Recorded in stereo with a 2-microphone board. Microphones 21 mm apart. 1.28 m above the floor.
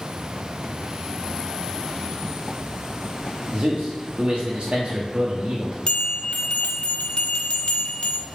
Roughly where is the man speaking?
Right.